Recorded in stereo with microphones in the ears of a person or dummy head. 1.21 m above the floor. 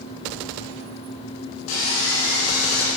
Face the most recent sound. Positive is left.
turn(degrees=65)  # may be behind; listen again after turning